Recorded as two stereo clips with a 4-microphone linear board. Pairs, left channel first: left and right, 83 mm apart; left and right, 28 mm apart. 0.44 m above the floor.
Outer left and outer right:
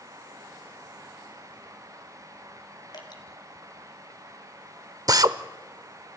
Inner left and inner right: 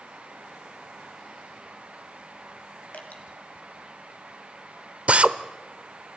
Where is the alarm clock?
I don't hear an alarm clock.